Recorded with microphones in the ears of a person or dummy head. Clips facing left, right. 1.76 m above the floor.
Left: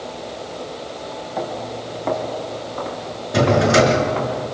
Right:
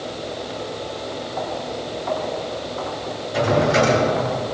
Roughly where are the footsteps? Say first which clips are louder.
Left 2 dB; left.